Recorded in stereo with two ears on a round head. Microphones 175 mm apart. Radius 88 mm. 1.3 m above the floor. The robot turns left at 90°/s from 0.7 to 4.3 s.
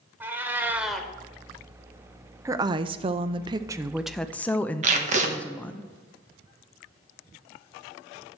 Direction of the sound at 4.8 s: 40° right (ahead or behind).